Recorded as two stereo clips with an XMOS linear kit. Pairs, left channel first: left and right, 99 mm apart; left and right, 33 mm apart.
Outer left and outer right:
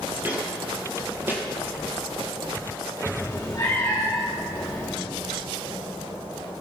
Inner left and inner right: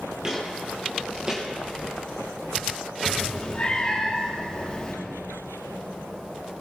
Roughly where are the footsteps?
Right.